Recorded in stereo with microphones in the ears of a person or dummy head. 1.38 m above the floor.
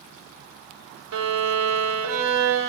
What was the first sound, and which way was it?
A violin, 75° right (ahead or behind).